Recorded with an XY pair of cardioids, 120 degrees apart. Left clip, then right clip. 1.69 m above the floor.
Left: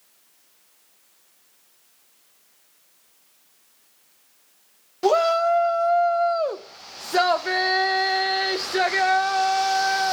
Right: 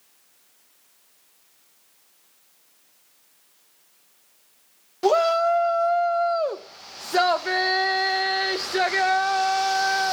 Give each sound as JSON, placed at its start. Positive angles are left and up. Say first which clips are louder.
{"t": 5.0, "sound": "a shout", "louder": "even", "azimuth_deg": 0, "distance_m": 0.6}